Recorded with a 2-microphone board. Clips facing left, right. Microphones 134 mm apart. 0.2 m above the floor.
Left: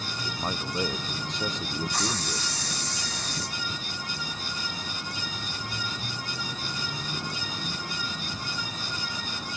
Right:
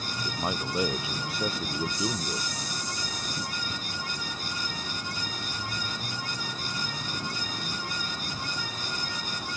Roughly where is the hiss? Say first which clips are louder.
Even; left.